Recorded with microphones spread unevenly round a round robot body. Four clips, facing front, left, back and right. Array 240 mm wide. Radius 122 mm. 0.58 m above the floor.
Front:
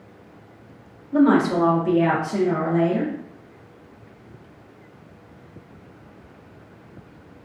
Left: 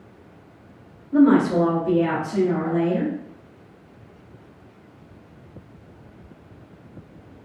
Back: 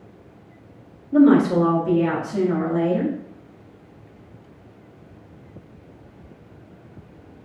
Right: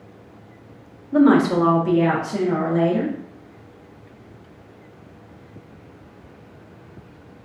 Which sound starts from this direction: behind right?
A woman speaking, at 1.1 s.